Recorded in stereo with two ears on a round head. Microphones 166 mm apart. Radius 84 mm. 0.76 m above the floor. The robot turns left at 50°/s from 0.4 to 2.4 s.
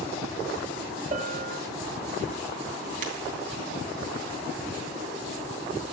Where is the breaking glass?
45° right (ahead or behind), 3 m.